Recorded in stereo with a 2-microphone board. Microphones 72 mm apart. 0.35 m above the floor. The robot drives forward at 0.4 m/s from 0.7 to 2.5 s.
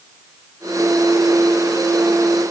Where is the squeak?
No squeak in this recording.